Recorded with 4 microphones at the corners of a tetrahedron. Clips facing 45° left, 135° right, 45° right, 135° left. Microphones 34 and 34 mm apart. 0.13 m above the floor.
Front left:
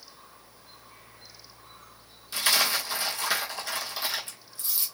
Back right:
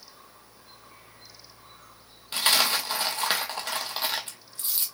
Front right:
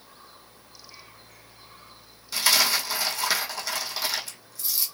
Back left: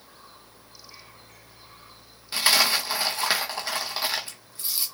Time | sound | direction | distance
2.3 | a dropped coin | 170° right | 1.1 m